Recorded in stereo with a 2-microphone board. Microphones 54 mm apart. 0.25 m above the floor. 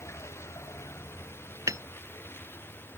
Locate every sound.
0.0 s a vehicle: 60° left (ahead or behind); by 3.0 s 45° left (ahead or behind)
1.7 s hammering: 80° right